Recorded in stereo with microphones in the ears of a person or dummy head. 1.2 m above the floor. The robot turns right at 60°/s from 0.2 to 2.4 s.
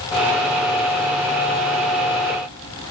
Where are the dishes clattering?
No dishes clattering in this recording.